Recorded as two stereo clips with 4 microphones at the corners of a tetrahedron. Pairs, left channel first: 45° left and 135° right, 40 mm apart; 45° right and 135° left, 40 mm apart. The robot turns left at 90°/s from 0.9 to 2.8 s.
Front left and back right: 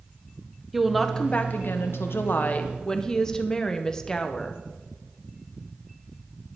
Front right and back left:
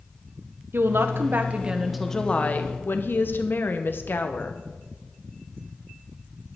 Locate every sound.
0.7 s a woman speaking: 140° left, 1.0 m; by 4.6 s 30° right, 1.0 m